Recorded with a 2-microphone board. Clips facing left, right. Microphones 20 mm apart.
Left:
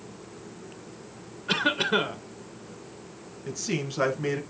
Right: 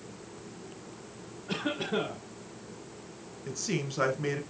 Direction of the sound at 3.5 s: 10° left (ahead or behind).